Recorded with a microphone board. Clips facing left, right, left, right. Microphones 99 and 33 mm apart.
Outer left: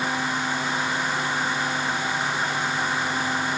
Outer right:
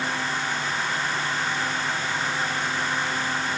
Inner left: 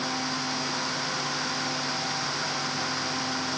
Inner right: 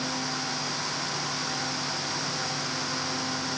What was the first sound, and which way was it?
Only background noise.